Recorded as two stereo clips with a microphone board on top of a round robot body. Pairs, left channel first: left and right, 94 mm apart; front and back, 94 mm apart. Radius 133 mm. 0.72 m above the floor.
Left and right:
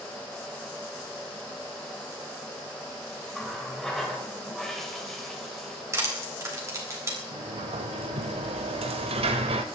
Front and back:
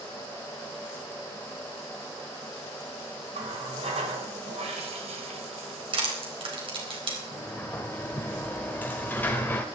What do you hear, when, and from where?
3.3 s a running tap: 175° left, 2.5 m
5.9 s crushing: 150° right, 4 m
7.3 s a sliding door: 75° right, 1.2 m